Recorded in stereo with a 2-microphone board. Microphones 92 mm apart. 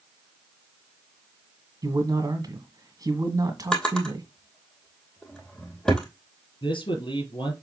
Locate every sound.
1.8 s a man speaking: 40° right (ahead or behind), 1.9 m
3.7 s a drawer: 5° left (ahead or behind), 2.5 m
6.6 s a man speaking: 60° left (ahead or behind), 4 m